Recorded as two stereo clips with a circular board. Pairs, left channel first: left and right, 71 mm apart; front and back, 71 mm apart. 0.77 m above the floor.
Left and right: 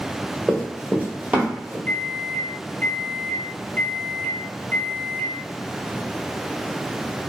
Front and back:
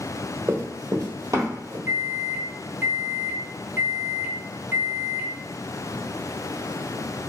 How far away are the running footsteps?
About 0.9 m.